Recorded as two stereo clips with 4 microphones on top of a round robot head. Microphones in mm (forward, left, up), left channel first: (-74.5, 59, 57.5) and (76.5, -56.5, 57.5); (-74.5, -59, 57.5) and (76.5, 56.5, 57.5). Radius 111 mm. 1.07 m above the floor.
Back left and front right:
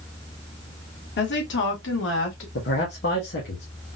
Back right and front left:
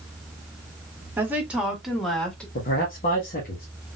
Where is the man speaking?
175° left, 1.4 m.